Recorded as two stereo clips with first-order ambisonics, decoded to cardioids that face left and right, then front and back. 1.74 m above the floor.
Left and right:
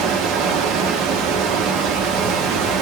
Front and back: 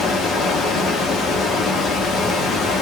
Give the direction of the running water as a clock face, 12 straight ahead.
2 o'clock.